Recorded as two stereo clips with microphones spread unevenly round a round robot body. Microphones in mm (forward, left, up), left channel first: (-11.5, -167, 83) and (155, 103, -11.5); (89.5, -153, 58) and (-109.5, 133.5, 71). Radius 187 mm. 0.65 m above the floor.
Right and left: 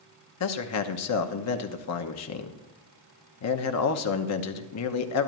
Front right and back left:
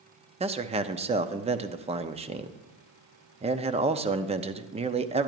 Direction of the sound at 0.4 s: 165° right.